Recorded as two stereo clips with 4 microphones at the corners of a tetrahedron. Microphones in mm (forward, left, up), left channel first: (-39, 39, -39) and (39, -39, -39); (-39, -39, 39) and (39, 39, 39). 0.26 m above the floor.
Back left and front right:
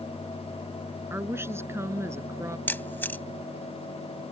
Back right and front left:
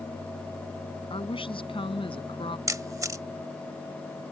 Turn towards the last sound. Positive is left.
turn(degrees=80)